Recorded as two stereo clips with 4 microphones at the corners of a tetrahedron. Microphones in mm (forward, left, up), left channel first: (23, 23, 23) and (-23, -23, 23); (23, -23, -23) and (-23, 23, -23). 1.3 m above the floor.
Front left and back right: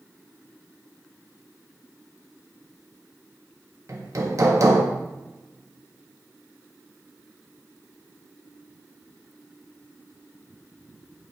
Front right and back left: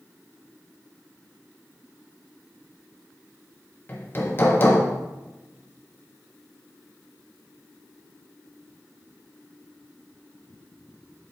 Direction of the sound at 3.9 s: 100° right.